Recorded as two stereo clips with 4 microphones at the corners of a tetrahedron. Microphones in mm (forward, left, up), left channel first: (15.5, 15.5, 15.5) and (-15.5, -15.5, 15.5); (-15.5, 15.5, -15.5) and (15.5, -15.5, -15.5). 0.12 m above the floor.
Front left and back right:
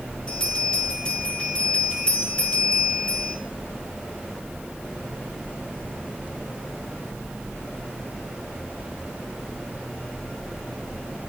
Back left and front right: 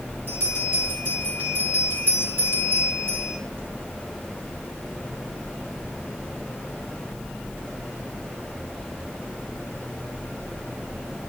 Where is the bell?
15° right, 3.5 m.